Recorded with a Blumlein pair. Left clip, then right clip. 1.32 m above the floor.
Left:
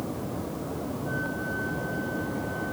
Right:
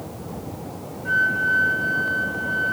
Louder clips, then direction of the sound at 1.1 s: Right 15 dB; 35° right.